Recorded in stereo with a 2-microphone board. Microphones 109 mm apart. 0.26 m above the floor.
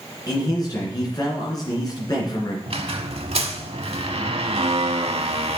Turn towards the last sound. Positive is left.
turn(degrees=-65)  # may be behind; listen again after turning